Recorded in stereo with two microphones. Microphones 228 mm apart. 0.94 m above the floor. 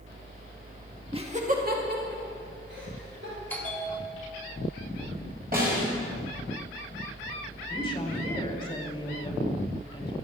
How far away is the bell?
About 2 m.